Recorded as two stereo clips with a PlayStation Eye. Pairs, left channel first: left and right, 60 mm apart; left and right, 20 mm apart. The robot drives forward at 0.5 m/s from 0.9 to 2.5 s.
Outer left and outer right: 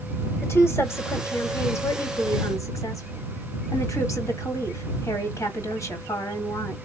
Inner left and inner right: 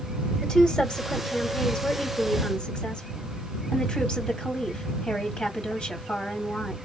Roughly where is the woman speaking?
Left.